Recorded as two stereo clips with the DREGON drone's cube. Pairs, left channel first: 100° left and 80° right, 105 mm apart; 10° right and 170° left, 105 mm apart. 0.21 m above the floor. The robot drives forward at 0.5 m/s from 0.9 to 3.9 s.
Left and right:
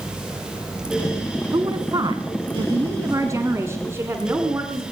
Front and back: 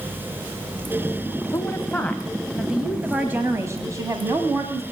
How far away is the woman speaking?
About 1.2 m.